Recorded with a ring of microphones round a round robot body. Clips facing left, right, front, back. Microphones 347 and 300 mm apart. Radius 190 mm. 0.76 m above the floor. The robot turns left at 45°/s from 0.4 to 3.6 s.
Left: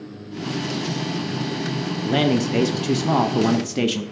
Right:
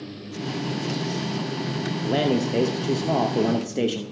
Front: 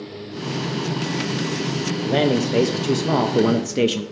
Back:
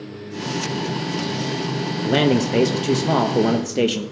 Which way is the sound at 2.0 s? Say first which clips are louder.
Left 3 dB, back 2 dB; 140° left.